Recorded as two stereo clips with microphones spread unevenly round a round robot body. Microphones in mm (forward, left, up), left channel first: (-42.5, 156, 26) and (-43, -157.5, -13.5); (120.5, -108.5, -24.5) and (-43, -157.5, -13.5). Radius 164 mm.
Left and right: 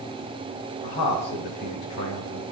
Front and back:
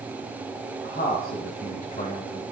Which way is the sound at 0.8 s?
70° left.